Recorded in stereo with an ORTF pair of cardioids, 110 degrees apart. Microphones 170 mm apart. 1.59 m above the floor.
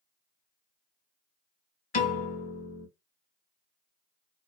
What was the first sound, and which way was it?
A piano, 50° left.